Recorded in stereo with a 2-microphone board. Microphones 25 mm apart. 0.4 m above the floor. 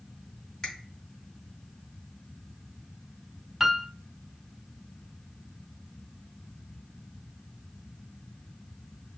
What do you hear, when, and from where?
0.6 s a finger snap: 20° left (ahead or behind), 2 m
3.6 s a piano: 10° right (ahead or behind), 0.5 m